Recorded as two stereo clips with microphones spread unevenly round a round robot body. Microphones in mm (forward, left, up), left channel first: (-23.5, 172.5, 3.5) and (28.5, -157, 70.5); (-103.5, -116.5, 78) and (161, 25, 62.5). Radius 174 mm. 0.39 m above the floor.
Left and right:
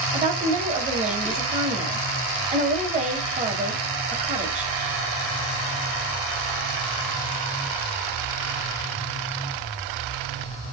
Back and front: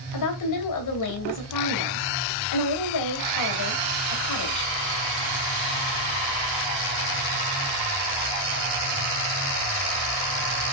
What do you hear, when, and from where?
0.1 s a woman speaking: 155° right, 2.5 m